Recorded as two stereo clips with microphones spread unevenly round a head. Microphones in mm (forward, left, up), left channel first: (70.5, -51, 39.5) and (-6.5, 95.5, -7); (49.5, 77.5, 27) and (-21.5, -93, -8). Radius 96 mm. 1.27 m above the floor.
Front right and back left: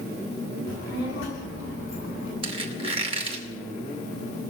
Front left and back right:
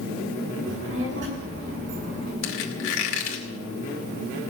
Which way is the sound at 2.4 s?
55° left.